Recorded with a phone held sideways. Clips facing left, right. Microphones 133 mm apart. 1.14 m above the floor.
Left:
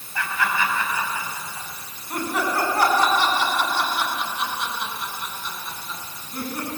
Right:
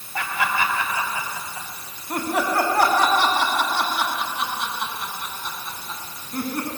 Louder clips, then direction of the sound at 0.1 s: Right 1 dB; 90° right.